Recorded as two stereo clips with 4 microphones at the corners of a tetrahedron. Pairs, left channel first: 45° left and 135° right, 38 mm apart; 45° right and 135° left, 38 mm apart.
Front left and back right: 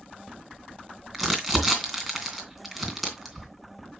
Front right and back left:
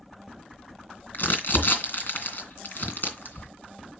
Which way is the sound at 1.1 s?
45° right.